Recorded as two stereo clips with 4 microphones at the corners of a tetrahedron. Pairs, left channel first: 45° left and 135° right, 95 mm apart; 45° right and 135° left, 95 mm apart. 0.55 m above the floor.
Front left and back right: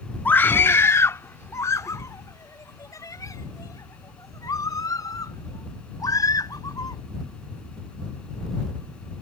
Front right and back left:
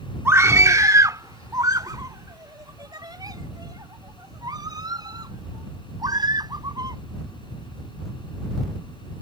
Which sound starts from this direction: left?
A scream, at 0.2 s.